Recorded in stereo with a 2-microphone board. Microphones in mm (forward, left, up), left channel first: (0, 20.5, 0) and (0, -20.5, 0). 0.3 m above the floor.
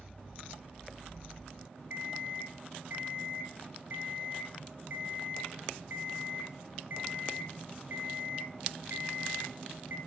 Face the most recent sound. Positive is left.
turn(degrees=-50)  # may be behind; listen again after turning